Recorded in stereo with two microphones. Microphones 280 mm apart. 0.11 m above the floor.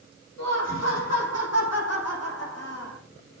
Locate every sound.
0.4 s laughter: 70° left (ahead or behind), 5.5 m; by 3.0 s 60° left (ahead or behind), 5.5 m